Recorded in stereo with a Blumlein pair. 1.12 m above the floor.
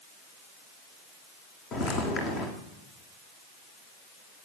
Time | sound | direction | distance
1.7 | footsteps | 30° left | 3.5 m